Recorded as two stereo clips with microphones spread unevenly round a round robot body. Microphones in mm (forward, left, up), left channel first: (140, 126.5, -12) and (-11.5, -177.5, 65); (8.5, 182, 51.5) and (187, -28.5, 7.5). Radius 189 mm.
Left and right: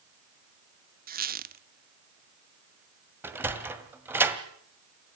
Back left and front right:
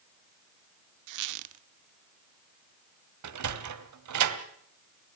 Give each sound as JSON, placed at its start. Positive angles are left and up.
{"t": 1.1, "sound": "a squeak", "azimuth_deg": -50, "distance_m": 0.7}
{"t": 3.2, "sound": "a sliding door", "azimuth_deg": -30, "distance_m": 1.7}